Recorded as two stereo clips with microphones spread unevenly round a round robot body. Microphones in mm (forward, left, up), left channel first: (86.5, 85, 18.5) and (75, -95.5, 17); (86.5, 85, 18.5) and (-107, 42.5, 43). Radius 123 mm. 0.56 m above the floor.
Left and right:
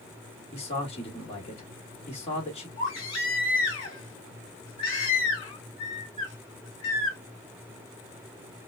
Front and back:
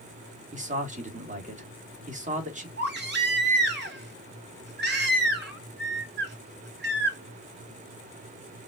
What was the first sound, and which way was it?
A man speaking, 145° left.